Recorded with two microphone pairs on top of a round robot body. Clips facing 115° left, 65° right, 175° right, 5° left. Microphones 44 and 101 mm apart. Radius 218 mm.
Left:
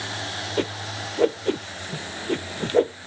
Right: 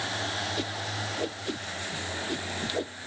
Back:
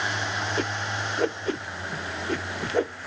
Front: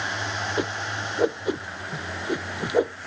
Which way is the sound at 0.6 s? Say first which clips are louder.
Left 5 dB, front 1 dB; 75° left.